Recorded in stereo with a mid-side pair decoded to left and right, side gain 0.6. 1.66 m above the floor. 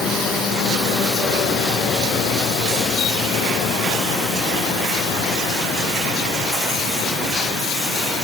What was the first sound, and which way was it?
Only background noise.